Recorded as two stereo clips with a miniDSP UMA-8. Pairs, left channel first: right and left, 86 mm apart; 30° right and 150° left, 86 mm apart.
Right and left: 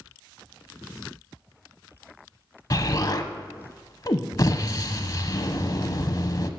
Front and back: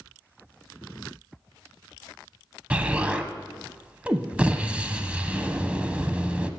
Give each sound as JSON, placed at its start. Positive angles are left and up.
{"t": 2.7, "sound": "an explosion", "azimuth_deg": -135, "distance_m": 0.7}